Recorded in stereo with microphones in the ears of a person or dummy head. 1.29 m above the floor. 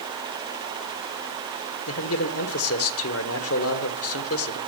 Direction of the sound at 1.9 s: 65° left (ahead or behind).